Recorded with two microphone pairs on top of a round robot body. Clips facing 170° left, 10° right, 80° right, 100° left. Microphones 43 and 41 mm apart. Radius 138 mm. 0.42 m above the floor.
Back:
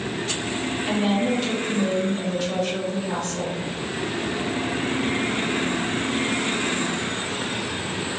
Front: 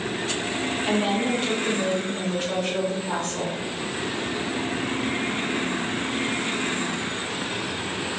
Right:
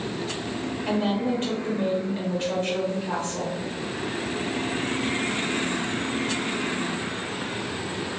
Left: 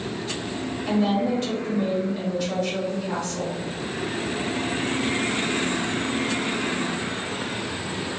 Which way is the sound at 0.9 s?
40° right.